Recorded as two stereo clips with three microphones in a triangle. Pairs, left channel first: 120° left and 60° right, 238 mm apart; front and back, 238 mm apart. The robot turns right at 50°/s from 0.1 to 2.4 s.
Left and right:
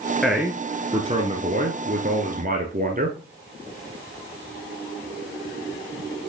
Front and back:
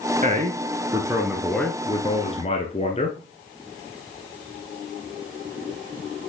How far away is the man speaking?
About 1.3 m.